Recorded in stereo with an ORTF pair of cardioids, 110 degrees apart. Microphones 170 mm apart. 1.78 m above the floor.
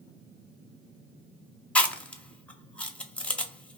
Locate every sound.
1.8 s chewing: 5° left, 0.6 m